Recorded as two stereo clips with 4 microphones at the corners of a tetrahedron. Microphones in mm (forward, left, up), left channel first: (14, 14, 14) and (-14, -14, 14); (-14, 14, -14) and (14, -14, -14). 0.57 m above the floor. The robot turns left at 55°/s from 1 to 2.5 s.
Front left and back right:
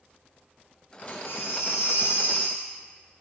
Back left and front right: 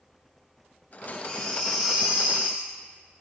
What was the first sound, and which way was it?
A baby crying, 75° left.